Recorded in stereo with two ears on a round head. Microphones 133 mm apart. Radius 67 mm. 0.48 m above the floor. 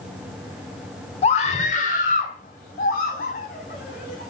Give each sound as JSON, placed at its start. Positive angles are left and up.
{"t": 1.2, "sound": "a scream", "side_deg": 45, "distance_m": 1.4}